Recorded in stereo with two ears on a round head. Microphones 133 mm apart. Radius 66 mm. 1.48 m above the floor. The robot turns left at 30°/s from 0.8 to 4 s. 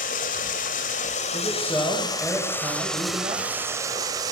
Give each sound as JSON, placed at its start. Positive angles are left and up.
{"t": 0.0, "sound": "running water", "azimuth_deg": 70, "distance_m": 2.5}
{"t": 1.3, "sound": "a man speaking", "azimuth_deg": 30, "distance_m": 9.0}